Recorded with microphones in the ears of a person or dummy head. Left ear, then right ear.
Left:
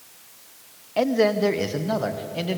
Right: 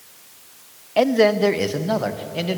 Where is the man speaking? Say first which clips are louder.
Right 4 dB; 15° right (ahead or behind), 0.6 m; by 2.6 s 5° right (ahead or behind), 2.0 m.